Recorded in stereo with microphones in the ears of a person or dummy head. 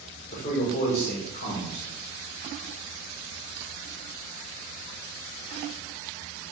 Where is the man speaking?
45° left (ahead or behind), 1.3 m.